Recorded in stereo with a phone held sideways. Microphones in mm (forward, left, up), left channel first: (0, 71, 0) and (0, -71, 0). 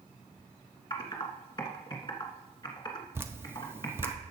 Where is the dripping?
15° right (ahead or behind), 0.7 m.